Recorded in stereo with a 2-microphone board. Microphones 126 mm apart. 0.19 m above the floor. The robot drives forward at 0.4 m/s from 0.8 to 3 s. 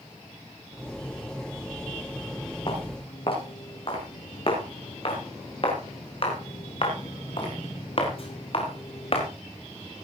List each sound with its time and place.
2.7 s footsteps: 45° left (ahead or behind), 9 m; by 9.3 s 50° left (ahead or behind), 5 m